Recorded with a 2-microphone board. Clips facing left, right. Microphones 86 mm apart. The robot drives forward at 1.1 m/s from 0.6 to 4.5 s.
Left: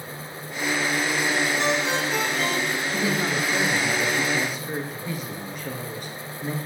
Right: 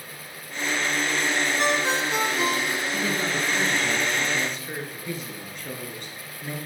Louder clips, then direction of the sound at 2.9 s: Left 3 dB; 15° left (ahead or behind).